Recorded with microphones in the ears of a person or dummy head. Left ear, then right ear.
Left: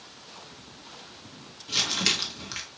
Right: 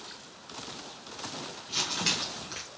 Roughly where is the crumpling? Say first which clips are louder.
Left 5 dB; centre.